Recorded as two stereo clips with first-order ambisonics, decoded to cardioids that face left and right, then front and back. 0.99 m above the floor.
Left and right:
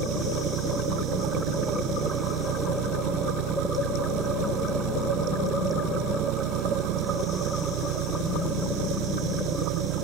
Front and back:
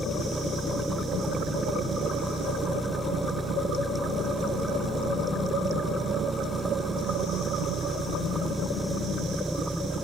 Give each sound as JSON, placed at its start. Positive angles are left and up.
{"t": 0.0, "sound": "an engine running", "azimuth_deg": -95}